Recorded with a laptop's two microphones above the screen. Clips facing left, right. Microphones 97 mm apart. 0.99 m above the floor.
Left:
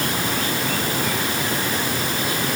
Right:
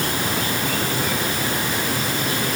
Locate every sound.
Only background noise.